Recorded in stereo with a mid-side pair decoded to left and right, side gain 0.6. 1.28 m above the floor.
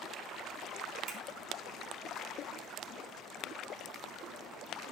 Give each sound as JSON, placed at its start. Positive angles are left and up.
{"t": 1.1, "sound": "a finger snap", "azimuth_deg": -55, "distance_m": 3.5}